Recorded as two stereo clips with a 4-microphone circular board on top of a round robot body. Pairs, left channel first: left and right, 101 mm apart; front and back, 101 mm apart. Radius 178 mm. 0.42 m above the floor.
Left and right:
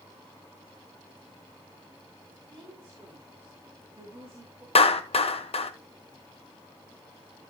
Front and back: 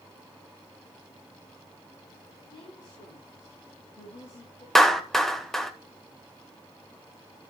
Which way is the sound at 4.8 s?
85° left.